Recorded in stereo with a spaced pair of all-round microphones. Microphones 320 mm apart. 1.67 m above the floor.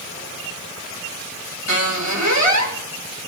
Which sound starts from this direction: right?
A squeak, at 1.7 s.